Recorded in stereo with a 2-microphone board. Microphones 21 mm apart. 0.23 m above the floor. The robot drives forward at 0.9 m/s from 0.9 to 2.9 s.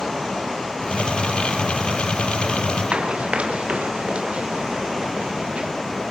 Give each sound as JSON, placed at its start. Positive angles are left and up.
{"t": 2.9, "sound": "running footsteps", "side_deg": -75, "distance_m": 3.0}